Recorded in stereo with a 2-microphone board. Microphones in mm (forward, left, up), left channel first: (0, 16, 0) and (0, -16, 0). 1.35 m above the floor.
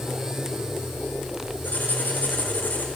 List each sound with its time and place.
1.6 s writing: 60° left (ahead or behind), 5 m